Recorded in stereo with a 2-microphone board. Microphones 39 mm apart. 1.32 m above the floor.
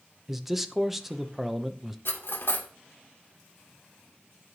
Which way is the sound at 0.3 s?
5° right (ahead or behind).